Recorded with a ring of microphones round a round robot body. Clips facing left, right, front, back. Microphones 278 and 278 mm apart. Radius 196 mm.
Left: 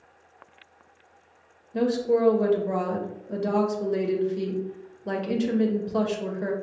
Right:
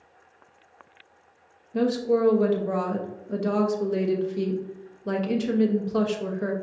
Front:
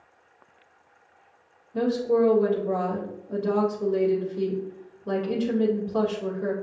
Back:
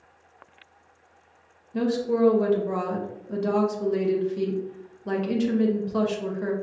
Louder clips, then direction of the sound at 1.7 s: Even, front 1 dB; 165° right.